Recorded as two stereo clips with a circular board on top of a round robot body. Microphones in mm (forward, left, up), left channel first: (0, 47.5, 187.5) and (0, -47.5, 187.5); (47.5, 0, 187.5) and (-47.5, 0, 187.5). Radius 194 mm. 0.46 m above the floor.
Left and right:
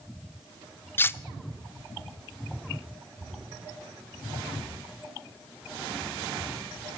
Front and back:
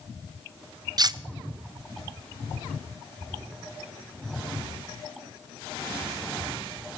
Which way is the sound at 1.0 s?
150° left.